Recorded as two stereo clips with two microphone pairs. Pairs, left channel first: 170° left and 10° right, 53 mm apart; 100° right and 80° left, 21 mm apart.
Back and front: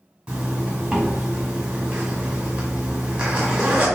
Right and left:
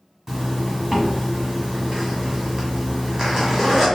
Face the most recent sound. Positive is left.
turn(degrees=55)